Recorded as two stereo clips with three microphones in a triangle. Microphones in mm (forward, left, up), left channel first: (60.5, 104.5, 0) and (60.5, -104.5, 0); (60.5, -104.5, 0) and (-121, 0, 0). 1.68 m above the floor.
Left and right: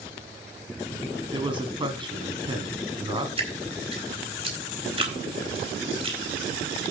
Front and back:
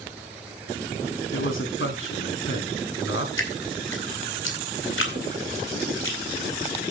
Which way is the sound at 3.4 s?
25° right.